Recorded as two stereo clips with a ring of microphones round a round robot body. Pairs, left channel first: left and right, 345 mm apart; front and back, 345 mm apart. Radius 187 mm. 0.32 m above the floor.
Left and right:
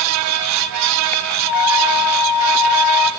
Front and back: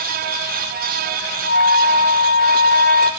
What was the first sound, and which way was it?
A flute, 55° left.